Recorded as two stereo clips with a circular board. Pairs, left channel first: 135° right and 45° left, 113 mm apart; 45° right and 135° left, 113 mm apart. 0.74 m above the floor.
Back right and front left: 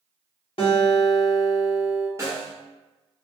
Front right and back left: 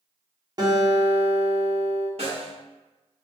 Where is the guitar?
170° right, 0.7 m.